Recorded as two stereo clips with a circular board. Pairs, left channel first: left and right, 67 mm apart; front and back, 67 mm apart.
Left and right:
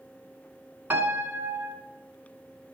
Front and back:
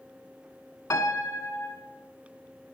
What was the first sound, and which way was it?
A piano, 30° right.